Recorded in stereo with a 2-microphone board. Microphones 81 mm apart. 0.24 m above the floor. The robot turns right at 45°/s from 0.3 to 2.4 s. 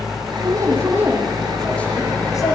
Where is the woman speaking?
50° right, 9 m; by 2.5 s 40° left, 9 m.